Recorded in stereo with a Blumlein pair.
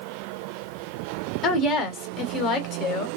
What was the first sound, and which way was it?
A woman speaking, 30° left.